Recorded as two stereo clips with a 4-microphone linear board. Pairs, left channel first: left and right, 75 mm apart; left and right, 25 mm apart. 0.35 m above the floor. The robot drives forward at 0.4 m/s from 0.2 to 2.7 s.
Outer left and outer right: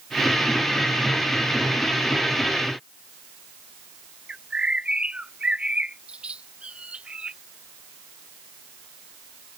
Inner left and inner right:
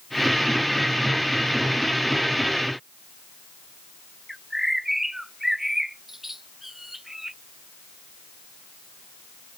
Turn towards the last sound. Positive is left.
turn(degrees=-15)  # may be behind; listen again after turning